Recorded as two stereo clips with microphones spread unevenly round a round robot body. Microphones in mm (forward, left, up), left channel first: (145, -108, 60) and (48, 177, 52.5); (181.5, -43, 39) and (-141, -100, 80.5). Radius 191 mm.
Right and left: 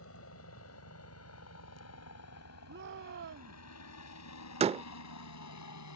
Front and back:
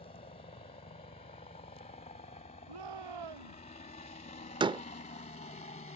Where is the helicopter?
50° right; by 6.0 s 55° right.